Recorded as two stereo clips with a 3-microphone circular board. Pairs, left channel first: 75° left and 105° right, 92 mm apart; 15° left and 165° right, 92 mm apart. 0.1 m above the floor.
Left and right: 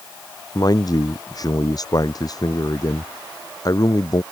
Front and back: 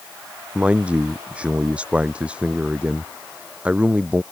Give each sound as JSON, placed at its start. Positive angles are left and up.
{"t": 0.6, "sound": "a man speaking", "azimuth_deg": 120}